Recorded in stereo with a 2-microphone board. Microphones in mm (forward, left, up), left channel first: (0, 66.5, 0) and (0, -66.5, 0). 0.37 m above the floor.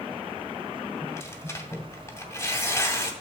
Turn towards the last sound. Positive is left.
turn(degrees=20)  # may be behind; listen again after turning